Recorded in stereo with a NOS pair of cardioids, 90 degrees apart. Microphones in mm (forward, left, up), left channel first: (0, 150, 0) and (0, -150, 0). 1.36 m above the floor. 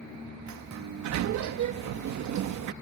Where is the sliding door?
70° right.